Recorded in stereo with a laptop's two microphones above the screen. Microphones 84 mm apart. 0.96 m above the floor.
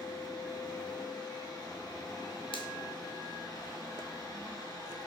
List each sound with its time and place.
0.0 s a fan: 50° left (ahead or behind), 4 m
2.5 s a finger snap: 80° left, 1.9 m